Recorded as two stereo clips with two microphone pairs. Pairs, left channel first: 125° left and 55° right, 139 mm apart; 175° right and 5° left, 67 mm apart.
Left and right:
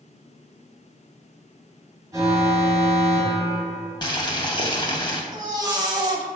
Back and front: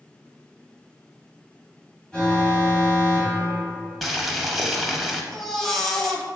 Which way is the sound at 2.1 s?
105° right.